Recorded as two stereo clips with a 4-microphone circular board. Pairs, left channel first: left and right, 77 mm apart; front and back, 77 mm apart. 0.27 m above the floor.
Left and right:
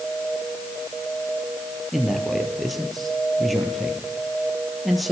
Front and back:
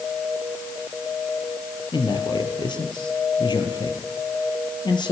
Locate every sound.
1.9 s a man speaking: straight ahead, 5.5 m